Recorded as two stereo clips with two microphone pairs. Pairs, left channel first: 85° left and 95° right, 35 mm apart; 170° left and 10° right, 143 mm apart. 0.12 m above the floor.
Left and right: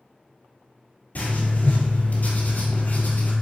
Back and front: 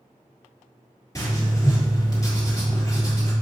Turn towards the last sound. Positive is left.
turn(degrees=105)